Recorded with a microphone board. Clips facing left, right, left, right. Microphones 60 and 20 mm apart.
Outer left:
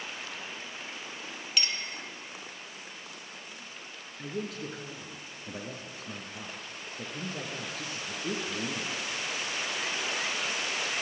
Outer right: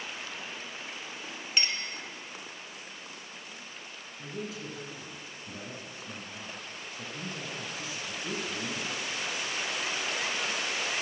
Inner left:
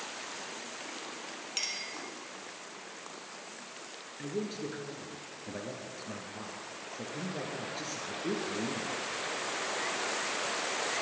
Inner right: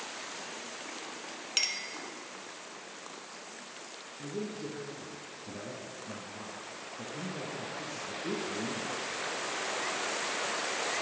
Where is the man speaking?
55° left (ahead or behind), 2.5 m.